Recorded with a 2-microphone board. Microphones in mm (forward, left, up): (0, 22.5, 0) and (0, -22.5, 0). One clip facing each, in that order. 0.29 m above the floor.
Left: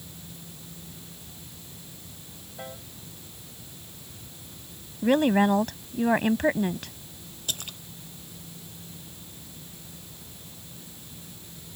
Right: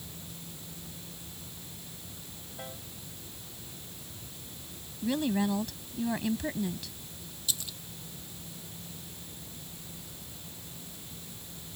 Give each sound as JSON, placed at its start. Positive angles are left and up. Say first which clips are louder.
{"t": 2.6, "sound": "a piano", "louder": "left 4 dB", "side_deg": 10}
{"t": 5.0, "sound": "a woman speaking", "louder": "left 8 dB", "side_deg": 50}
{"t": 7.5, "sound": "a splash", "louder": "left 3 dB", "side_deg": 50}